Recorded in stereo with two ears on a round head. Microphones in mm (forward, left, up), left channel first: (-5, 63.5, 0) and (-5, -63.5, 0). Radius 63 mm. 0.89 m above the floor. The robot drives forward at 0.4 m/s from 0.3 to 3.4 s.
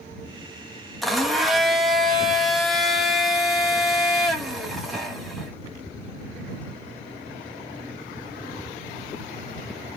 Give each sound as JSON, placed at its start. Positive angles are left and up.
{"t": 1.0, "sound": "a blender", "side_deg": 0, "distance_m": 1.3}